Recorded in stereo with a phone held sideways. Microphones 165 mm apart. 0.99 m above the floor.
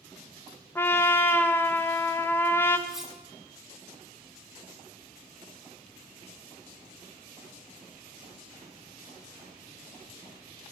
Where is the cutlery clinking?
5° right (ahead or behind), 1.2 m.